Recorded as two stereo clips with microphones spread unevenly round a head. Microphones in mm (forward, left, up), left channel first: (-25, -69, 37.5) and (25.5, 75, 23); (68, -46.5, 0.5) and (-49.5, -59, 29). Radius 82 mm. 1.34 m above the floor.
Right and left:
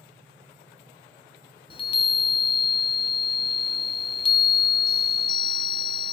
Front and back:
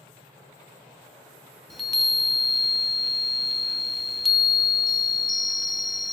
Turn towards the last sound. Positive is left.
turn(degrees=-65)